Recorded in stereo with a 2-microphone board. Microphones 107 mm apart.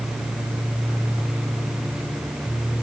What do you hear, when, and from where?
Only background noise.